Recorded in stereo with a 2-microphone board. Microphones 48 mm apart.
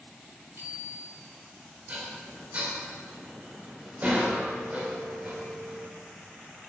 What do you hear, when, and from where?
0.6 s a bicycle bell: 75° right (ahead or behind), 4 m
1.9 s dishes clattering: 35° right (ahead or behind), 4 m